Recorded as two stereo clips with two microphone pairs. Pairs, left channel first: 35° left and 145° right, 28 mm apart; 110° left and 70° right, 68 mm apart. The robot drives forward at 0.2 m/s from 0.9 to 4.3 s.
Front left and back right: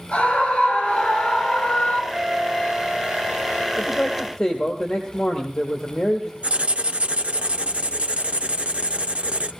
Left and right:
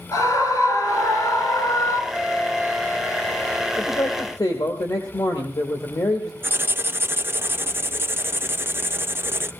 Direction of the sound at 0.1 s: 85° left.